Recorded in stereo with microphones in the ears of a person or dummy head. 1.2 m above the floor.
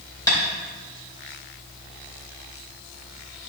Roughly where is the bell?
No bell in this recording.